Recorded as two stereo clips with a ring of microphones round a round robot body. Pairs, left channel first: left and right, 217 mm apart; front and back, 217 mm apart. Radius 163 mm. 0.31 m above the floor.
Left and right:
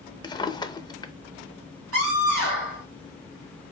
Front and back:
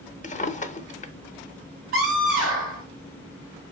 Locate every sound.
0.2 s a drawer: 30° left, 0.7 m
1.9 s a scream: 125° right, 3.5 m